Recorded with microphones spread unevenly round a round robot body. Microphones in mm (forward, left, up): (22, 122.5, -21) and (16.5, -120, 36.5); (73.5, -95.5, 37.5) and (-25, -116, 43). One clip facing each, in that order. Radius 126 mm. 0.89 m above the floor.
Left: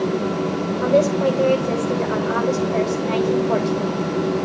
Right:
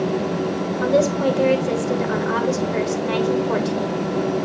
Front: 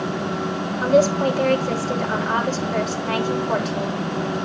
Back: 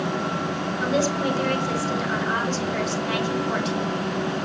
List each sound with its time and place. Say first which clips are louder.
0.8 s a woman speaking: left 1 dB, front 7 dB; 25° right, 3 m